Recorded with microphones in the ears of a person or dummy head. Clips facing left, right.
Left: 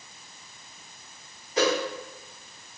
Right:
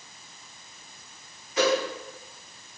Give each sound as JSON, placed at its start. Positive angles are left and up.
{"t": 1.6, "sound": "a whoosh", "side_deg": 35, "distance_m": 1.2}